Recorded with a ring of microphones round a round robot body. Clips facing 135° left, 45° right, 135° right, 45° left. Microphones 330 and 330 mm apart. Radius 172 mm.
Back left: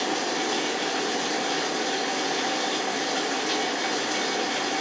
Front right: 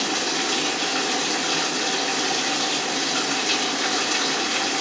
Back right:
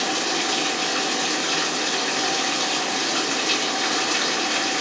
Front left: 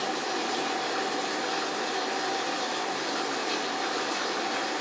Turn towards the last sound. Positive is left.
turn(degrees=-110)